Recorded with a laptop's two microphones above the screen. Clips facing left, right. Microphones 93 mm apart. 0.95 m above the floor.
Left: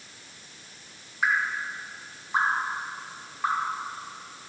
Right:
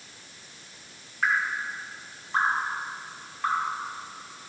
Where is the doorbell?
I don't hear a doorbell.